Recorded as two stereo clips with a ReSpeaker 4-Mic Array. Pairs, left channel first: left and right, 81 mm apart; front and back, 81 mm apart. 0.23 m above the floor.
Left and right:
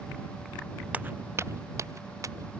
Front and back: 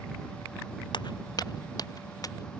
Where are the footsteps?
20° right; by 2.5 s 45° right.